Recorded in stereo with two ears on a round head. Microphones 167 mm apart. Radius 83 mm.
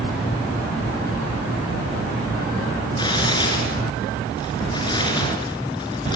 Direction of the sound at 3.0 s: 25° left (ahead or behind).